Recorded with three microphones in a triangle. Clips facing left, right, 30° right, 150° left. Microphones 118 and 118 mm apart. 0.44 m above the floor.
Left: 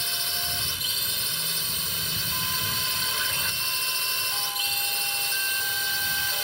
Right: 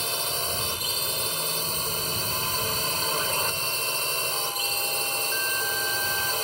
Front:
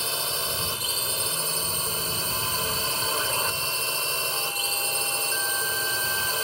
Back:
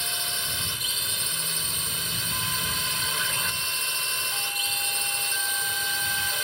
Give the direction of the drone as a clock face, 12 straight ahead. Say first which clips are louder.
Right 6 dB, front 5 dB; 2 o'clock.